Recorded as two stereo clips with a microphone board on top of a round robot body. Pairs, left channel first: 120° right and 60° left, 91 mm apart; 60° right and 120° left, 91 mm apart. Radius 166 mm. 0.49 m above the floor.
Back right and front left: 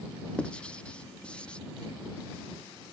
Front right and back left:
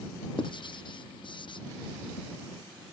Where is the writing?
45° right.